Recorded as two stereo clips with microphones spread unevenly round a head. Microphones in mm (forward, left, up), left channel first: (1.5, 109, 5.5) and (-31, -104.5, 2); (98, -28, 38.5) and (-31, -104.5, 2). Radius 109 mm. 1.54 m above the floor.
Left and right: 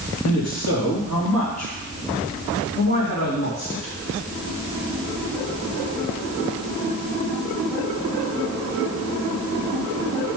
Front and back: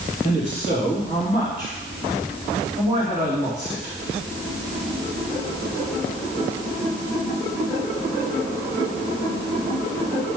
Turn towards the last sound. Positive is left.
turn(degrees=115)